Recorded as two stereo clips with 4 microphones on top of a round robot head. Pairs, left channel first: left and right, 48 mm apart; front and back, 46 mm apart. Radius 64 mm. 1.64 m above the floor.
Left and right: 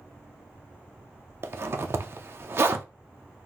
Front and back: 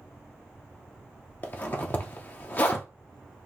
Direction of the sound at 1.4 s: 55° right.